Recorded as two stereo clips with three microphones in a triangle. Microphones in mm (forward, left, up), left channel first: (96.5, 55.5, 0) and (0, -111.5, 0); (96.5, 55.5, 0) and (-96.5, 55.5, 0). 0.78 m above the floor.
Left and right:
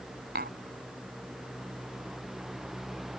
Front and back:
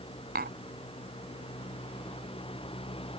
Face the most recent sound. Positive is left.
turn(degrees=-150)